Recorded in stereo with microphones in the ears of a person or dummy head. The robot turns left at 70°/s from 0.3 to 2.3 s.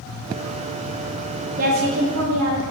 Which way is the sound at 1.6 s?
50° right.